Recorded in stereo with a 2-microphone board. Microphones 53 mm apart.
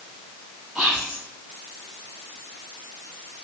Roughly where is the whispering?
Centre.